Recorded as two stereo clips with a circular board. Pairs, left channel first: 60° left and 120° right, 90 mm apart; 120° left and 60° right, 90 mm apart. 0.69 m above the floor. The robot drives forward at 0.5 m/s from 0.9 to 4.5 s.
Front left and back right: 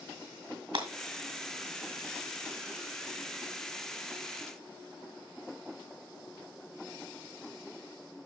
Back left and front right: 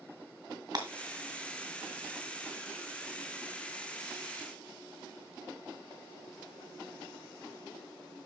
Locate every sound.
0.7 s breaking glass: 95° right, 2.0 m